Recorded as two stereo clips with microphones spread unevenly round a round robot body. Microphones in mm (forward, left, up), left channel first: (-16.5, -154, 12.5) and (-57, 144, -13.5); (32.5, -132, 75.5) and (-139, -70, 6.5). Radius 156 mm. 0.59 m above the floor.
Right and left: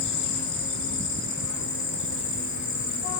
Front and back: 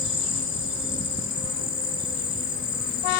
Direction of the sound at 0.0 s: 65° right.